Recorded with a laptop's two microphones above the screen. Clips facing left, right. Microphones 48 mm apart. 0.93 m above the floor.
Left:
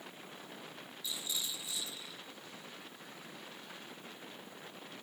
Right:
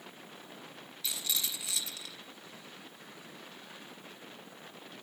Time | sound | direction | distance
1.0 | a rattle | 85° right | 4 m